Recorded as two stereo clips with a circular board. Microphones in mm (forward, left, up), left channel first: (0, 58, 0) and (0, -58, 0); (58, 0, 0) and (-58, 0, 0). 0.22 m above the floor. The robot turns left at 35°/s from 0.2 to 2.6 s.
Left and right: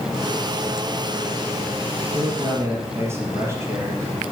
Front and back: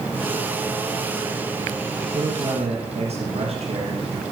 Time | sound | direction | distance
2.1 | a man speaking | 140° right | 5 m